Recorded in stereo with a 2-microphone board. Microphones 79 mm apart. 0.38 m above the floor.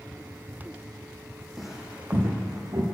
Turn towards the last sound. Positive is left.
turn(degrees=-55)  # may be behind; listen again after turning